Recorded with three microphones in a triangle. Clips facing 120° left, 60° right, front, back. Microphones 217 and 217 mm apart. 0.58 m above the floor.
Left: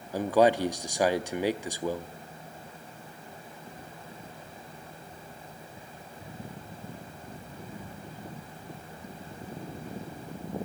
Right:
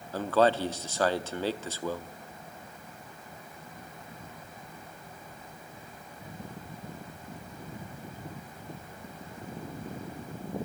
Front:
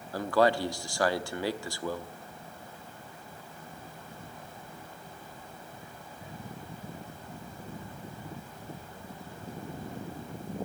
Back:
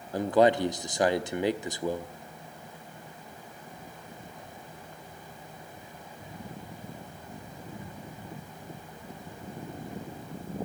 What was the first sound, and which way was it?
A man speaking, 165° left.